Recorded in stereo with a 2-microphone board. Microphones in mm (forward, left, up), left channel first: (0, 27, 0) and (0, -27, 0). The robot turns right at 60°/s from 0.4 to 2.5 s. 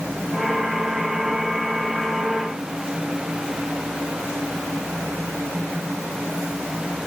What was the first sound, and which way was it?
Only background noise.